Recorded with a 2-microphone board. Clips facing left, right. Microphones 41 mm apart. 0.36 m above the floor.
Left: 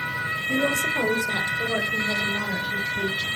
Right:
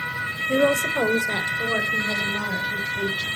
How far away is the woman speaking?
About 1.4 m.